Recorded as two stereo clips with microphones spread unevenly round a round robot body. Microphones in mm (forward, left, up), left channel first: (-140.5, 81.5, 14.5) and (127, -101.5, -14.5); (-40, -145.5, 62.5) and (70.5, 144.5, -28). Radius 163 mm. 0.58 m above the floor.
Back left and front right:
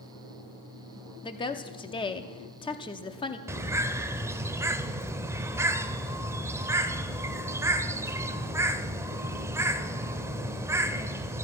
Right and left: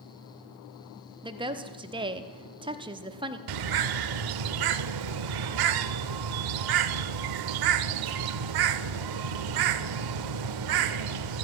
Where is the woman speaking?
75° left, 0.8 m.